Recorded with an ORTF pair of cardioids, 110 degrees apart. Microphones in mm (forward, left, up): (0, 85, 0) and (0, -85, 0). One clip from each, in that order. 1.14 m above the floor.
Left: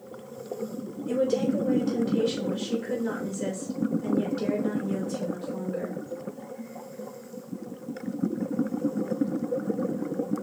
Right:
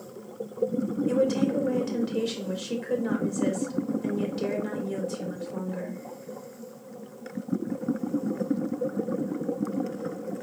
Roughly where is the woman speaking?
Ahead.